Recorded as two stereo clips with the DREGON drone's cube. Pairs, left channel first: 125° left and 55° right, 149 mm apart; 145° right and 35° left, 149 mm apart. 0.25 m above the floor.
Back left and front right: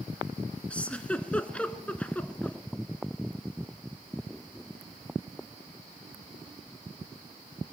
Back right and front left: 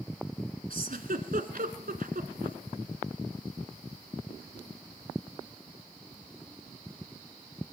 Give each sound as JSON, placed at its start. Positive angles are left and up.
{"t": 0.7, "sound": "a giggle", "azimuth_deg": 45, "distance_m": 1.5}